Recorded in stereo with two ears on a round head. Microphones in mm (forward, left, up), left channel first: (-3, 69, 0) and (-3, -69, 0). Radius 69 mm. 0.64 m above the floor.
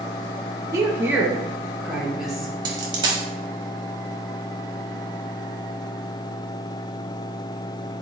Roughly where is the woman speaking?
Right.